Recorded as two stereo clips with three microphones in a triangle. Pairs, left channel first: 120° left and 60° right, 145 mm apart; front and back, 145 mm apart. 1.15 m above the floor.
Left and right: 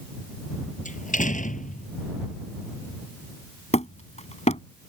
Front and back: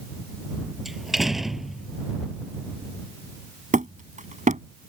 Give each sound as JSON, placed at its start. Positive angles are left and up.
{"t": 0.8, "sound": "a door slam", "azimuth_deg": 90}
{"t": 3.7, "sound": "hammering", "azimuth_deg": 155}